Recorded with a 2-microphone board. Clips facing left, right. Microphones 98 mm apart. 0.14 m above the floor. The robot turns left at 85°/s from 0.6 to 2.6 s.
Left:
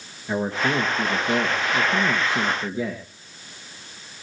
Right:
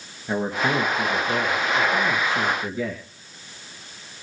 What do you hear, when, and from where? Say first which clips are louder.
0.3 s a man speaking: even; 160° right, 2.5 m; by 3.0 s 30° left, 2.5 m